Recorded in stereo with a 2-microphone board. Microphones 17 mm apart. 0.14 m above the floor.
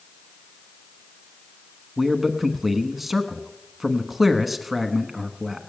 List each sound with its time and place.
2.0 s a man speaking: 10° right (ahead or behind), 1.0 m